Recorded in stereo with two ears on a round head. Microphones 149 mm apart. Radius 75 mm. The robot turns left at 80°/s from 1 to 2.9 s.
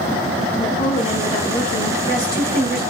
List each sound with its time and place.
0.6 s a woman speaking: 140° left, 1.6 m; by 2.8 s 5° right, 1.6 m